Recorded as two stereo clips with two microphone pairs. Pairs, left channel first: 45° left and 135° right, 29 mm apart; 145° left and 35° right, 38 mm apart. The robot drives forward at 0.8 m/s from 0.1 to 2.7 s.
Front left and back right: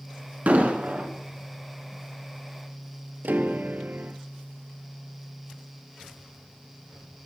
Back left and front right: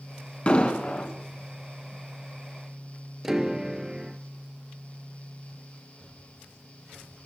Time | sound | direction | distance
0.5 | an explosion | 160° right | 2.5 m
3.2 | a piano | 115° right | 0.8 m